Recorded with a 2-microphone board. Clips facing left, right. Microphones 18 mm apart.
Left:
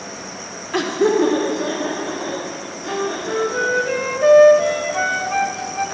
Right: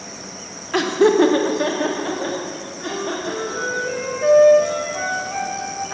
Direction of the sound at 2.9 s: 35° left (ahead or behind).